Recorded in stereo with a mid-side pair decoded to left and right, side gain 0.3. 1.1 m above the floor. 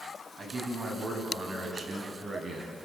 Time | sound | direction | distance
0.4 | a man speaking | 60° right | 7 m